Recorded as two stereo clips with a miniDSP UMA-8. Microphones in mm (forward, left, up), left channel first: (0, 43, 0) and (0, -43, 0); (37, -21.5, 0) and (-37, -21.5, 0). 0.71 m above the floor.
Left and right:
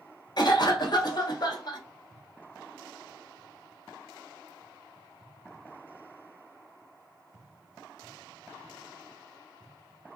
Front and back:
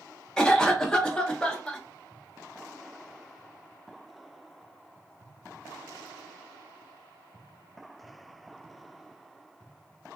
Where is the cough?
80° left, 0.8 m.